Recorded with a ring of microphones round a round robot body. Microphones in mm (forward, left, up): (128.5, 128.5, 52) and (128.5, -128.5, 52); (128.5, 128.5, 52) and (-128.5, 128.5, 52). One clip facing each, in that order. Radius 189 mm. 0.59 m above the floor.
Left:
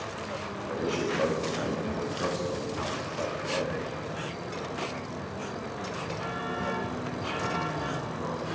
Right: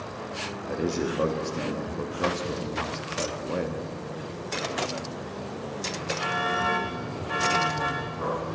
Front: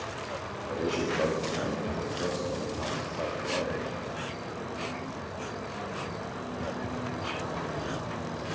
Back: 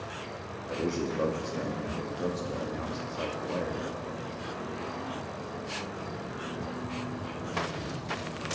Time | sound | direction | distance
0.7 | a man speaking | 110° right | 0.7 m